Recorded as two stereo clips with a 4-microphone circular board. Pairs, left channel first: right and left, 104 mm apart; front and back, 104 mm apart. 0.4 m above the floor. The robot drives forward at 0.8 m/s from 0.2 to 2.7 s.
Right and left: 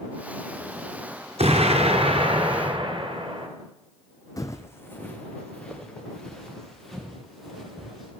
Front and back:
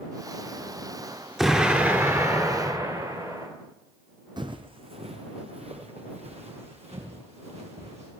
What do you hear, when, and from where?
1.4 s an explosion: 95° left, 1.4 m; by 3.5 s 130° left, 1.8 m
4.4 s footsteps: 140° right, 0.8 m; by 8.1 s straight behind, 4 m